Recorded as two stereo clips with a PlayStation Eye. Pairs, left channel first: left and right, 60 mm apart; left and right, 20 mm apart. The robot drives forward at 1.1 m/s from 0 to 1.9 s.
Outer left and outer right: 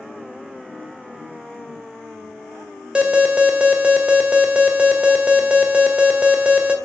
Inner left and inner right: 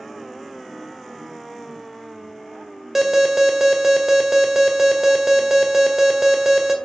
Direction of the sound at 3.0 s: 20° right (ahead or behind).